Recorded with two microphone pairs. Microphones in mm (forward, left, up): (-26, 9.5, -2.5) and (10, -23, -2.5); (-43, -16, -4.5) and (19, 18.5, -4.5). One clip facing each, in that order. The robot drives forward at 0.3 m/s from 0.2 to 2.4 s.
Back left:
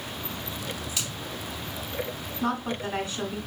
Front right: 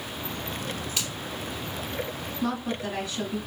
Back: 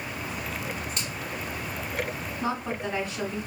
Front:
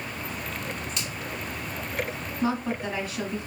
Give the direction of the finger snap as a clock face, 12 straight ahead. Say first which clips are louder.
Front right 2 dB, even; 3 o'clock.